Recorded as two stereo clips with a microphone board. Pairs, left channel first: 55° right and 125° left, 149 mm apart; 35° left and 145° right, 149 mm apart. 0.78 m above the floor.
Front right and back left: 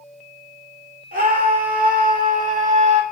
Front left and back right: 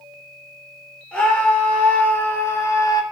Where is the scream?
115° left, 3 m; by 3.0 s 95° left, 1.4 m.